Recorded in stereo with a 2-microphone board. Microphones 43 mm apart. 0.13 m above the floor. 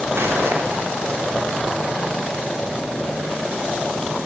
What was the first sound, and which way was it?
Footsteps, 75° right (ahead or behind).